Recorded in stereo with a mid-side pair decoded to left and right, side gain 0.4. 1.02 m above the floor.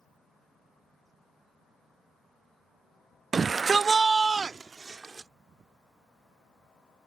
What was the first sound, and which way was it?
A shout, 40° right.